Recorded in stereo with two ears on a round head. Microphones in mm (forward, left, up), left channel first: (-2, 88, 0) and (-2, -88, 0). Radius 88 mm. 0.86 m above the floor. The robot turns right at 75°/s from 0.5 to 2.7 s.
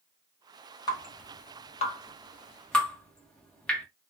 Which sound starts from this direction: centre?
Dripping, at 0.9 s.